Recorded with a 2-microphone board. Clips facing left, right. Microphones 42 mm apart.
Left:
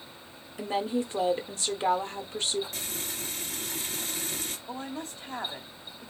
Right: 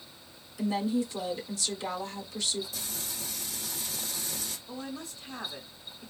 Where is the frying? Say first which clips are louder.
Left 3 dB; 55° left (ahead or behind), 1.7 m.